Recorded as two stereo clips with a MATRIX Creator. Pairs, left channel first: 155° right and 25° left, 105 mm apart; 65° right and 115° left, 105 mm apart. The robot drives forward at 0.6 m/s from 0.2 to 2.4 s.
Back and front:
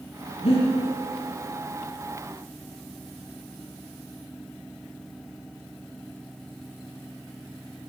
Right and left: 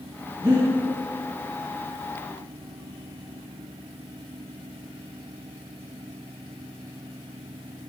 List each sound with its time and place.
0.4 s breathing: 170° left, 5 m